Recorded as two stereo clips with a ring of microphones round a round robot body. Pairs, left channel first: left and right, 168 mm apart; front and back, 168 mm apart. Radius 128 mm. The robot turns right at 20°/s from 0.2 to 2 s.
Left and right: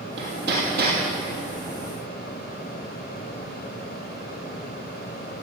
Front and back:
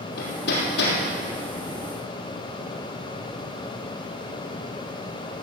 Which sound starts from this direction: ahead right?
Hammering, at 0.2 s.